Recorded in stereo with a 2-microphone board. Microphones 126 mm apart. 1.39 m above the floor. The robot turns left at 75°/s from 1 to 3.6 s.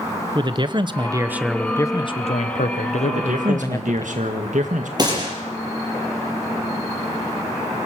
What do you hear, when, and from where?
0.3 s a man speaking: 140° right, 0.9 m; by 4.0 s 25° left, 0.9 m
3.0 s a man speaking: 55° right, 1.8 m; by 4.9 s 100° right, 1.8 m
5.0 s a gunshot: 35° right (ahead or behind), 5.5 m